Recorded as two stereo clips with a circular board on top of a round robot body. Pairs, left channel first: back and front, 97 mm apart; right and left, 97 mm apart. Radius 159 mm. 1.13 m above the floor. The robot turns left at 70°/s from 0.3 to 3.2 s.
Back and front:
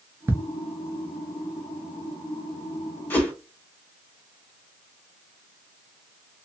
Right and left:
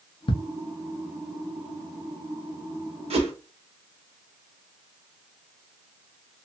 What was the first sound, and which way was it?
Ticking, 65° right.